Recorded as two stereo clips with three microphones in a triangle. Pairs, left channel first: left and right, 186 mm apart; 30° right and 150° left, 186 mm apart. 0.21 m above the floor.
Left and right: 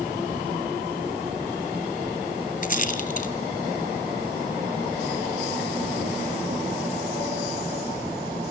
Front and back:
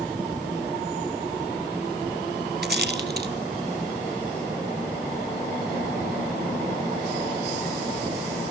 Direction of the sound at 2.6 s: 130° left.